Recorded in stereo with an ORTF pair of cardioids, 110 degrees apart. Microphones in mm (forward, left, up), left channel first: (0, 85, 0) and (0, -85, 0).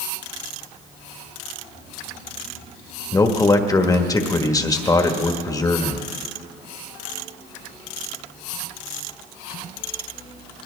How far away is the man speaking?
About 1.4 m.